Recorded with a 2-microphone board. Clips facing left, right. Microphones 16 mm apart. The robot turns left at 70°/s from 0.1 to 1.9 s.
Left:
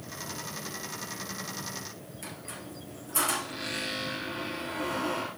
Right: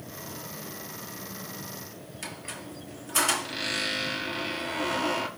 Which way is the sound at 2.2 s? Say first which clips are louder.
Right 4 dB; 35° right (ahead or behind).